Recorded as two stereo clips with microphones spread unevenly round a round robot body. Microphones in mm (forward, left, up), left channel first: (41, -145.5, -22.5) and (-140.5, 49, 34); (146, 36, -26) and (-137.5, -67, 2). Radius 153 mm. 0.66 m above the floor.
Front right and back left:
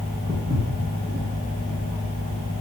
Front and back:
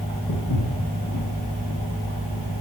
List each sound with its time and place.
0.3 s footsteps: 55° left, 5.5 m; by 2.6 s 65° left, 7 m